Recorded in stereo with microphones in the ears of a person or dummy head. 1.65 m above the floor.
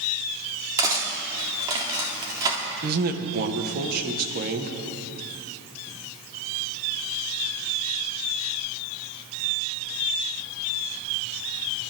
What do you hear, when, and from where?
0.8 s cutlery clinking: 20° right (ahead or behind), 2.0 m
2.8 s a man speaking: 50° right (ahead or behind), 1.3 m